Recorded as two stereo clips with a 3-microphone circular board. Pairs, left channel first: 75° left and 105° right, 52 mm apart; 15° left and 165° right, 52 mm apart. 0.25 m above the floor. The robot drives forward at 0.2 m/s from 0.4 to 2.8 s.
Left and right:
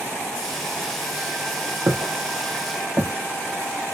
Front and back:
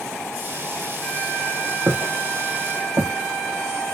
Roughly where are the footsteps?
Behind right.